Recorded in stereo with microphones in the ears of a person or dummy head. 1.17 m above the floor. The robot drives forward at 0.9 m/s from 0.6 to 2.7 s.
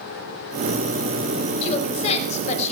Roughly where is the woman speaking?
Left.